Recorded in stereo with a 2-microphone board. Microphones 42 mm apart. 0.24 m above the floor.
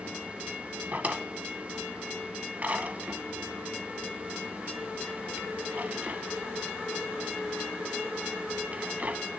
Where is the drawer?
40° right (ahead or behind), 0.7 m.